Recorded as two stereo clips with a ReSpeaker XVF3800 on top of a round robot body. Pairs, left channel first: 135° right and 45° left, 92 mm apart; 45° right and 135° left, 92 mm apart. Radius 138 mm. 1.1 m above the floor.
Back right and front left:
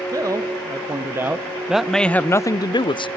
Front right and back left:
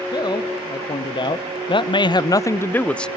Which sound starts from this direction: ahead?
A man speaking, at 0.1 s.